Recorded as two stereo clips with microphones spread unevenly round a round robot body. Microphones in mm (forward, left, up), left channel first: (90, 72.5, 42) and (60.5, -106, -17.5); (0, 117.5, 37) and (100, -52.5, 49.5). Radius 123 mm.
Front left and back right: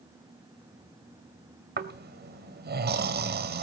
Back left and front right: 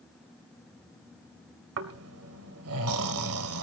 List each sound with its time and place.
1.8 s snoring: 65° right, 2 m